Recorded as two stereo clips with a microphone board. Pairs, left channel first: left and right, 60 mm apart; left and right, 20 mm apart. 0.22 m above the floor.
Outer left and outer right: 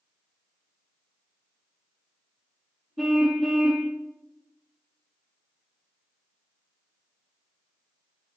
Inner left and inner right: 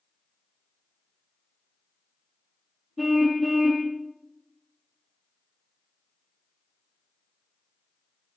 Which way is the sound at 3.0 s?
Centre (ahead or behind).